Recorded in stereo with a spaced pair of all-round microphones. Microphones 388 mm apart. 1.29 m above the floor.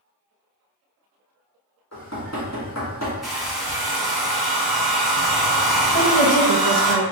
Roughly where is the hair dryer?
Centre.